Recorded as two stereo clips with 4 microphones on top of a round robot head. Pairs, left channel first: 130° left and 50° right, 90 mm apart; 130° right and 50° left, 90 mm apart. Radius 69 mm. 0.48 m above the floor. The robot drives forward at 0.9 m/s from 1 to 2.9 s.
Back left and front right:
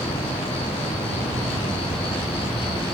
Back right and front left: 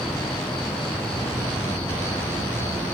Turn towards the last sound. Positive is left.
turn(degrees=165)